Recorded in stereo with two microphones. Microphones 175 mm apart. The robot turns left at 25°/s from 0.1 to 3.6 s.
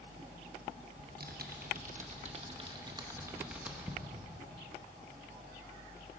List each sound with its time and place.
1.0 s typing on a keyboard: 70° right (ahead or behind), 0.9 m; by 4.0 s 5° right (ahead or behind), 0.9 m